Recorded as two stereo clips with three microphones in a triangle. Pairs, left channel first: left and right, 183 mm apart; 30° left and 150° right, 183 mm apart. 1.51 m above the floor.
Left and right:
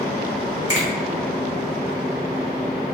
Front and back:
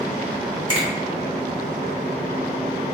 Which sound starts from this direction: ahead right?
A finger snap, at 0.7 s.